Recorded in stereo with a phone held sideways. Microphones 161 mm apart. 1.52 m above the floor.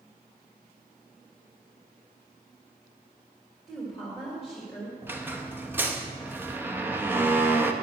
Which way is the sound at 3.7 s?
Centre (ahead or behind).